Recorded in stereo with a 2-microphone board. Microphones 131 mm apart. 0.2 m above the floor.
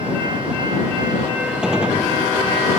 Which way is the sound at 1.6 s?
5° right (ahead or behind).